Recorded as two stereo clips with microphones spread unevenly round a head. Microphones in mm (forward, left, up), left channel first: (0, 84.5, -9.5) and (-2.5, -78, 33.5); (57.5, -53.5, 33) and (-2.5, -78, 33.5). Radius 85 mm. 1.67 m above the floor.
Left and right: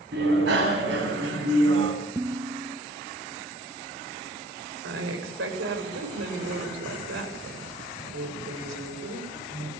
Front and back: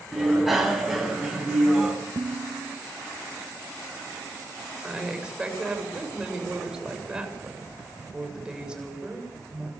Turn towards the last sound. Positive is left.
turn(degrees=-80)